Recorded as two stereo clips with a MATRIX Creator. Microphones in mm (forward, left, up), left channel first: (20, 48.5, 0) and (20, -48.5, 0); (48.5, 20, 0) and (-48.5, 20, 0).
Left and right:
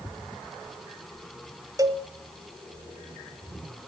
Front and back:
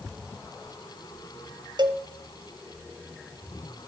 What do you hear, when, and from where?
1.8 s a cowbell: 140° right, 1.0 m